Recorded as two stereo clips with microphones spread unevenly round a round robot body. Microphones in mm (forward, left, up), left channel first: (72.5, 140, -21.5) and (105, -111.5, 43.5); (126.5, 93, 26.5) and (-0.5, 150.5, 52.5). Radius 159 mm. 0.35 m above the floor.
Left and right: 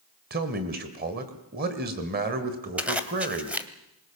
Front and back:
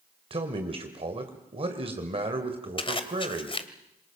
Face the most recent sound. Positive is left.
turn(degrees=10)